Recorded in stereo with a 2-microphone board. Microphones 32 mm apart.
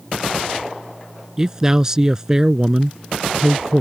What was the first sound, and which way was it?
A man speaking, 20° right (ahead or behind).